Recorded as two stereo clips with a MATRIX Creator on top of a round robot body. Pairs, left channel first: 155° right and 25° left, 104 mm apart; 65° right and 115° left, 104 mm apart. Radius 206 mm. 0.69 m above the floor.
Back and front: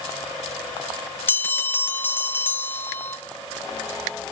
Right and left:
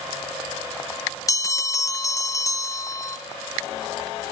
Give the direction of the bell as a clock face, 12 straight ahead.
3 o'clock.